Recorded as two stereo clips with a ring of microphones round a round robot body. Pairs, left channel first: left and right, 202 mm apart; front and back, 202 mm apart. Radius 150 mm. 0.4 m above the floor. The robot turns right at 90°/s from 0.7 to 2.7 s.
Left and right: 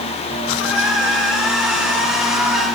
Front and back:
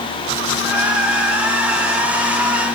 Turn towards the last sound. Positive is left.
No sound to turn to.